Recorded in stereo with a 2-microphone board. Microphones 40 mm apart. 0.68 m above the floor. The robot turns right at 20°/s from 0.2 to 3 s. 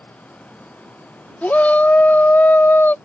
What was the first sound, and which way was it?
A shout, 50° left.